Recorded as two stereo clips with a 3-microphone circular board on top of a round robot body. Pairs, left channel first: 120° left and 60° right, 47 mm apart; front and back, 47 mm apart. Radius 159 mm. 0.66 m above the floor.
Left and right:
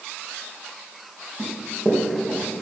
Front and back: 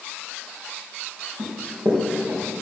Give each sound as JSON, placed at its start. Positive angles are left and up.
{"t": 1.4, "sound": "running footsteps", "azimuth_deg": -135, "distance_m": 4.5}